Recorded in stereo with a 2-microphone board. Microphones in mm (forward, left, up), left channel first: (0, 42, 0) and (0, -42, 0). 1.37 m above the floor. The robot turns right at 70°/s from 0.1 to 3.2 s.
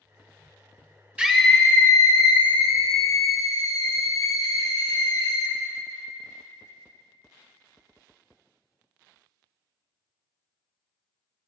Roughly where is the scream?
Ahead.